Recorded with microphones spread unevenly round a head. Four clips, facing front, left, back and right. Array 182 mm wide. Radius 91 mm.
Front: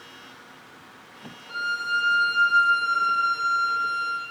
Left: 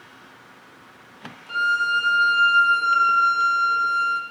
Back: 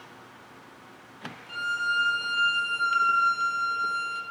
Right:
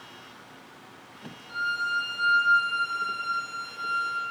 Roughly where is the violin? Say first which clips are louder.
Left 7 dB, front 1 dB; left.